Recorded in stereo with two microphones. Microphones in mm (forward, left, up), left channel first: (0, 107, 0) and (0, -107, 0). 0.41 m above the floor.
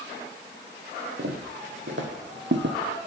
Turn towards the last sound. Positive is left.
turn(degrees=-65)  # may be behind; listen again after turning